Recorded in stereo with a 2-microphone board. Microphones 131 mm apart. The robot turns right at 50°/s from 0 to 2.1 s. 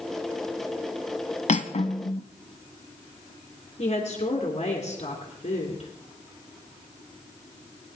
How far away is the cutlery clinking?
About 1.0 m.